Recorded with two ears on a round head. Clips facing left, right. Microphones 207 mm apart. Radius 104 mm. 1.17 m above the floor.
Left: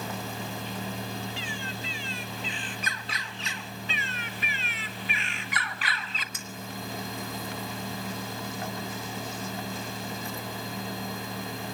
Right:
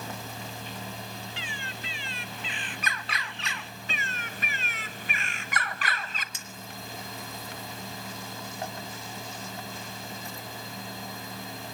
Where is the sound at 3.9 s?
40° right (ahead or behind), 1.1 m.